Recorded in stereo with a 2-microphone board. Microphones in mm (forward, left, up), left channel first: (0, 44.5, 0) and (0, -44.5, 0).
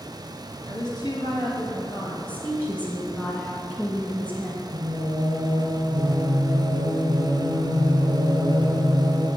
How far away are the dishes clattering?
I don't hear dishes clattering.